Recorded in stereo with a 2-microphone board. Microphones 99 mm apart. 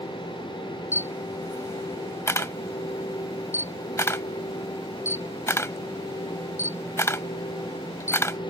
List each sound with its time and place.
0.9 s a camera shutter: 25° left (ahead or behind)